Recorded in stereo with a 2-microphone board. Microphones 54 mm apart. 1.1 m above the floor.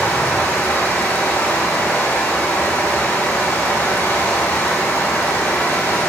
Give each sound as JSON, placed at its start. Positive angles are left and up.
{"t": 0.0, "sound": "running water", "side_deg": 65, "distance_m": 4.0}